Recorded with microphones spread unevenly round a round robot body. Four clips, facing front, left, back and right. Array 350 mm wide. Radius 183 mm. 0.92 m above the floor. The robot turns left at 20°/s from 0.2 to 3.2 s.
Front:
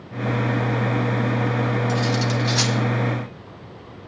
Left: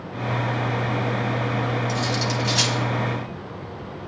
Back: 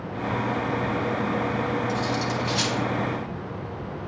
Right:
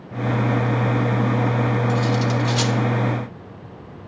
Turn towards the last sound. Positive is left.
turn(degrees=-15)